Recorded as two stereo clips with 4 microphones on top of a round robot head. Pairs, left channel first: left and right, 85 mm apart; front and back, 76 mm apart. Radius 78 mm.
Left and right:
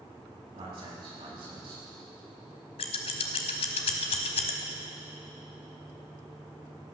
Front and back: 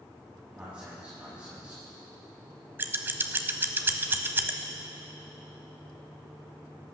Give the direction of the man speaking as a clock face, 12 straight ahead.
3 o'clock.